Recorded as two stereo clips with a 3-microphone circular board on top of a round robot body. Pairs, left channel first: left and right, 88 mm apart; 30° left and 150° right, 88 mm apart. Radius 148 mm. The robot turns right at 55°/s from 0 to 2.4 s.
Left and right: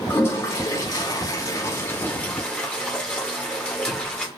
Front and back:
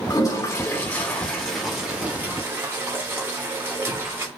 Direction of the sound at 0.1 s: 35° left.